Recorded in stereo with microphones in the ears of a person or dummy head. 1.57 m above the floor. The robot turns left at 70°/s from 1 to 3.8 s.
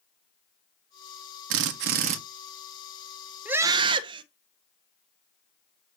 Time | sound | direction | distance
1.5 | a drill | 90° right | 1.8 m
3.5 | a scream | 5° right (ahead or behind) | 1.7 m